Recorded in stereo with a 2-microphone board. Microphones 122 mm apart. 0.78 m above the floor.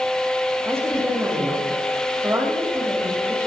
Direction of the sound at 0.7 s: 20° right (ahead or behind).